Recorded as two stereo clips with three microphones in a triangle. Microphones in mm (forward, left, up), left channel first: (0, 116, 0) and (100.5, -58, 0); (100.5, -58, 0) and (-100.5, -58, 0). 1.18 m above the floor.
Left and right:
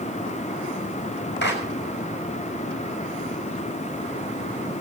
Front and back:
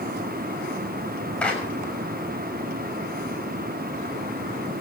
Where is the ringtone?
I don't hear a ringtone.